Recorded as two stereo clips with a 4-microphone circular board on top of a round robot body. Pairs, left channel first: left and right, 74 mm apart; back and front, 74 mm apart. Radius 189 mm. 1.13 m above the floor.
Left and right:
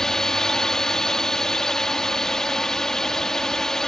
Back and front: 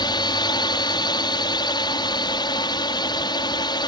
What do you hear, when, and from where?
0.0 s a drone: 170° left